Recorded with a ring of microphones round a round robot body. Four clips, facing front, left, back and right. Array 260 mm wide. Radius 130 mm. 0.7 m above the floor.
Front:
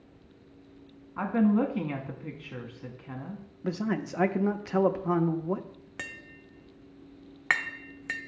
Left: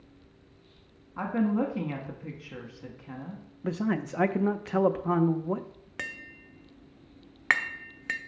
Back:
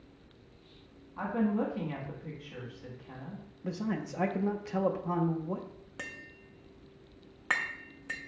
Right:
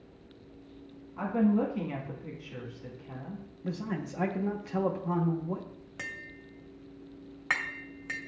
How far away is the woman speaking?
About 1.2 m.